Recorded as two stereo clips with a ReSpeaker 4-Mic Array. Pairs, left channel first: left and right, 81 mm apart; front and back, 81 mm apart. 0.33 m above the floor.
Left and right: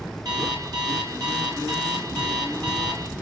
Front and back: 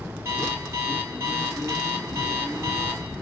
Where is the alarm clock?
125° right, 4.5 m.